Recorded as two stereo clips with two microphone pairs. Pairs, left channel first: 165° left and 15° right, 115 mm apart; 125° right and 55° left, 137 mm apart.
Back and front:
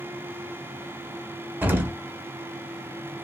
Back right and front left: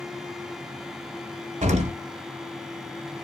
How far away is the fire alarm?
I don't hear a fire alarm.